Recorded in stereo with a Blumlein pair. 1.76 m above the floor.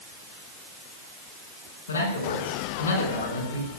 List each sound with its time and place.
1.9 s a man speaking: 65° left, 5.5 m